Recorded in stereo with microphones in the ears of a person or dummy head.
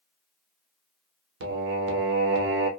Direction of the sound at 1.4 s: 70° right (ahead or behind).